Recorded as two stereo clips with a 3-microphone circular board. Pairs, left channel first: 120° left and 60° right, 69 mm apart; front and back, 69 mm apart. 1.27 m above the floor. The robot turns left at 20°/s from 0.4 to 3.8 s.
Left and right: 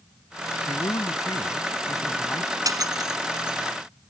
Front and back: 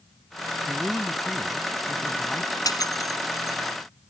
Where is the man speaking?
100° left; by 2.5 s 65° left.